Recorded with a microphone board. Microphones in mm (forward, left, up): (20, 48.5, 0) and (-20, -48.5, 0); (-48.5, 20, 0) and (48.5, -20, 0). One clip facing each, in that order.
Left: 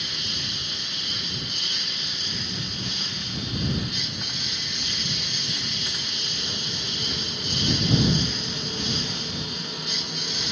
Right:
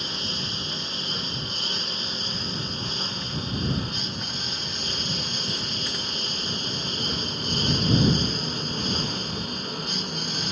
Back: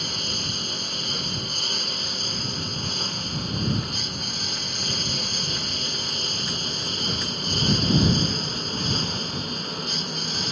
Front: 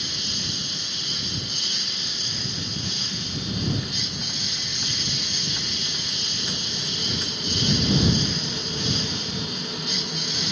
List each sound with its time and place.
0.0 s a lawn mower: 165° right; by 10.5 s 160° right